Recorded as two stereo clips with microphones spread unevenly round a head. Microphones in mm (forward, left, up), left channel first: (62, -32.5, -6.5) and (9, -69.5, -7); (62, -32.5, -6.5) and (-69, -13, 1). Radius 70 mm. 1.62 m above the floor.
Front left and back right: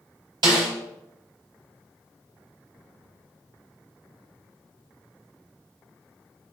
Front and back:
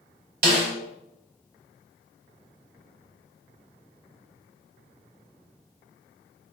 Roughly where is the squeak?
I don't hear a squeak.